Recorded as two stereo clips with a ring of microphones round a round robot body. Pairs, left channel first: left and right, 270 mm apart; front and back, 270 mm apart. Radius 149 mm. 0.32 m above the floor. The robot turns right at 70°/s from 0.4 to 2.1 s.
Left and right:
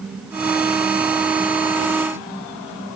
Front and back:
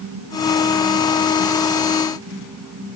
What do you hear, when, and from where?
Only background noise.